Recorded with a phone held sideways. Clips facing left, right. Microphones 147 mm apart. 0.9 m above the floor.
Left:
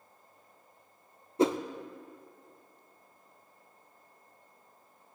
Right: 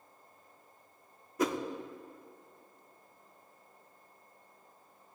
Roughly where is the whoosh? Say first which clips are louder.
Left 5 dB; left.